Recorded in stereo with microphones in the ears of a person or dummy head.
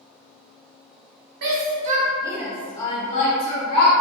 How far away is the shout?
About 0.7 m.